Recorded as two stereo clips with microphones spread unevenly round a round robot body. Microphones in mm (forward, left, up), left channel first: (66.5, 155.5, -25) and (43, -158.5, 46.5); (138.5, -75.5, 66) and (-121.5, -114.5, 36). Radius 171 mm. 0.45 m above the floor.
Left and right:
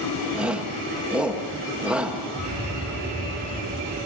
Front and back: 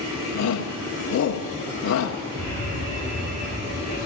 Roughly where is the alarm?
Behind.